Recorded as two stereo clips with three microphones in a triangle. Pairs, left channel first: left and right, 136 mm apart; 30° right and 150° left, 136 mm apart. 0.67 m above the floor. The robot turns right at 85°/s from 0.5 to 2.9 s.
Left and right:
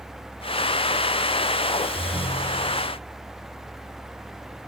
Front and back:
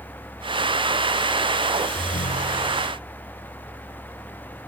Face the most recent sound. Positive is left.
turn(degrees=55)